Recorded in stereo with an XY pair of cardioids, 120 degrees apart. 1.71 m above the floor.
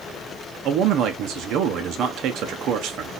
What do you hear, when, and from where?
0.7 s a man speaking: 70° right, 1.0 m